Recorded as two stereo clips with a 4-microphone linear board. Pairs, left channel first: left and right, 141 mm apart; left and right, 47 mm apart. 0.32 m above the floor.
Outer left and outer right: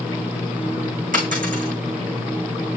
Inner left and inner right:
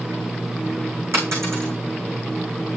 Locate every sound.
1.1 s a dropped coin: 70° right (ahead or behind), 6.5 m